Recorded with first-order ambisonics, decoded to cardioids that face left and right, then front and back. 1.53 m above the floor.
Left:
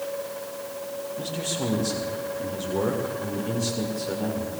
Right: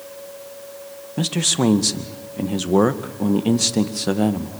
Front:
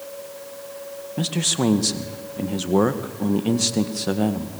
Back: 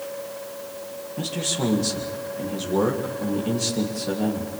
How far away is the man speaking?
About 1.9 m.